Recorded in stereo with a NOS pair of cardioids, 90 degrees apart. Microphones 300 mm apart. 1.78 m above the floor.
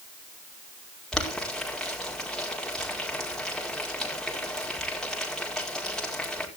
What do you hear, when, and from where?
1.1 s boiling: straight ahead, 5 m